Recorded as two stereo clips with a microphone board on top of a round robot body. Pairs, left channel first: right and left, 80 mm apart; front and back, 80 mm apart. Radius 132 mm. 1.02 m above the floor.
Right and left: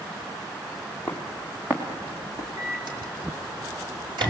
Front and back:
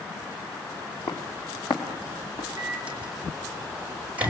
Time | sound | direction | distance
1.1 | footsteps | straight ahead | 2.5 m
2.6 | a microwave | 110° left | 5.5 m